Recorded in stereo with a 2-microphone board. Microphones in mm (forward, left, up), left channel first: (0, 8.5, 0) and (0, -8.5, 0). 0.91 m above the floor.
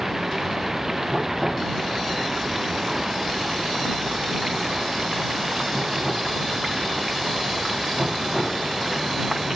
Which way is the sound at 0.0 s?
15° right (ahead or behind).